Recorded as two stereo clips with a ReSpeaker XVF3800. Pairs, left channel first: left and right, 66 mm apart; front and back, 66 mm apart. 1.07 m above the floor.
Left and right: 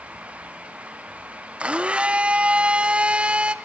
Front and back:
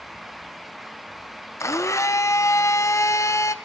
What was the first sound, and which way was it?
A blender, 20° right.